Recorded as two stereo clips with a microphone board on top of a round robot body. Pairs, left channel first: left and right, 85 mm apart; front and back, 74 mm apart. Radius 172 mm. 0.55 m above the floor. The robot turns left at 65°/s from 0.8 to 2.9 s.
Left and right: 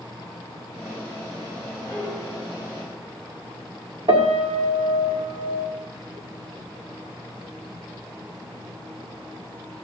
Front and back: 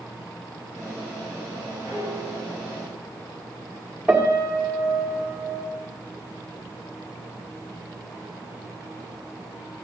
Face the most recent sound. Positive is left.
turn(degrees=-100)